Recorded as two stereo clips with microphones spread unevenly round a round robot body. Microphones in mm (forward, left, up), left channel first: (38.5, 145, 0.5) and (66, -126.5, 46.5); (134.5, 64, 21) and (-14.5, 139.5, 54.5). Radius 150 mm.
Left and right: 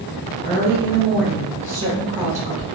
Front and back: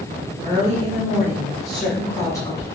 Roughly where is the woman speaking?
Behind left.